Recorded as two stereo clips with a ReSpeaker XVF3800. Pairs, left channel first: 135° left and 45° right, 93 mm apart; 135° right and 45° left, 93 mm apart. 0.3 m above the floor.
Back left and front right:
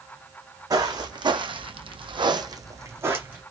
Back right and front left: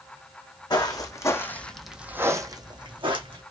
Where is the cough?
I don't hear a cough.